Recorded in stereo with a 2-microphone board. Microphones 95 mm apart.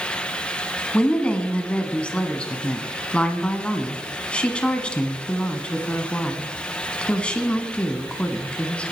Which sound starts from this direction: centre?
A woman speaking, at 0.9 s.